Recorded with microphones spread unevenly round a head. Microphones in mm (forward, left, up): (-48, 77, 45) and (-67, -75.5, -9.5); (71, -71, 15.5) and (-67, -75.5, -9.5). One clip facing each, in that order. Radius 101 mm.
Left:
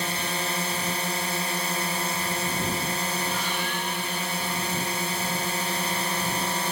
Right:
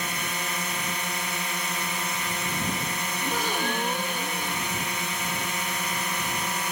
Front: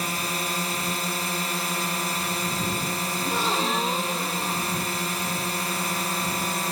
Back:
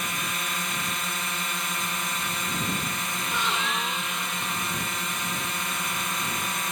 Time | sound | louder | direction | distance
0.0 | a drone | left 3 dB, front 4 dB | 20° left | ?
3.2 | a gasp | right 2 dB, front 4 dB | 55° right | ?